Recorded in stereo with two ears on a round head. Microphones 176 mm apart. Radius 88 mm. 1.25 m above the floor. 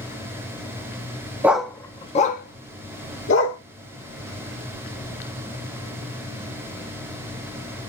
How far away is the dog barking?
About 0.6 m.